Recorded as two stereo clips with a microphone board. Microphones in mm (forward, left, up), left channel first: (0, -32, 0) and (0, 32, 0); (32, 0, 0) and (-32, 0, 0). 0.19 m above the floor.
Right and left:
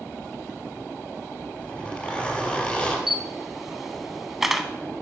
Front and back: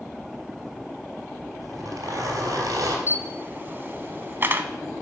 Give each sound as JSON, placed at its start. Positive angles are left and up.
{"t": 1.6, "sound": "a zipper", "azimuth_deg": -165, "distance_m": 3.5}
{"t": 3.1, "sound": "a camera shutter", "azimuth_deg": 175, "distance_m": 0.7}